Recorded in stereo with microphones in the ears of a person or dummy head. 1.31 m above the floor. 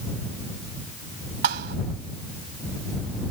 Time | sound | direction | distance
1.4 | a thud | 60° right (ahead or behind) | ?